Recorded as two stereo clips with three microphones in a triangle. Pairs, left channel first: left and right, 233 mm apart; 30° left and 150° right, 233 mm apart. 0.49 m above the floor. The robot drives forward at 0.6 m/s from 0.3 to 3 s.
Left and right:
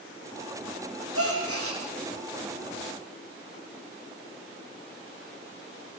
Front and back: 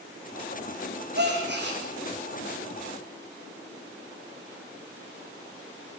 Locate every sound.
1.1 s a gasp: 105° right, 7.5 m; by 1.8 s 110° right, 7.5 m